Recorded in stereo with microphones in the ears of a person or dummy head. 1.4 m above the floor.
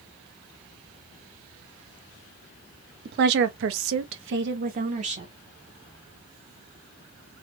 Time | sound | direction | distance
3.0 | a woman speaking | 50° right (ahead or behind) | 0.9 m